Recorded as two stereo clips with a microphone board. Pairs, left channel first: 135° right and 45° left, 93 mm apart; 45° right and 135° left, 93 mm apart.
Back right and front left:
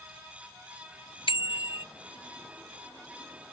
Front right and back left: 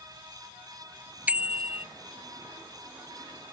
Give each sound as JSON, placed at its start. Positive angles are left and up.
{"t": 1.3, "sound": "a bicycle bell", "azimuth_deg": -150}